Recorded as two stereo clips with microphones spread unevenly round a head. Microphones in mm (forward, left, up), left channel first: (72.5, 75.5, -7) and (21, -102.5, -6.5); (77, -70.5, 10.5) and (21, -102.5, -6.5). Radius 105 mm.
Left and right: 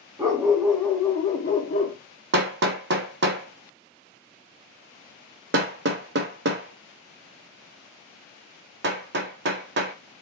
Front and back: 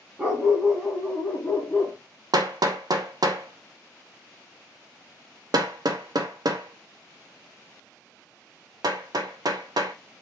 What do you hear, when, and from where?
0.2 s a dog barking: 80° right, 1.1 m; by 2.0 s 70° left, 1.5 m
2.3 s hammering: 125° right, 0.6 m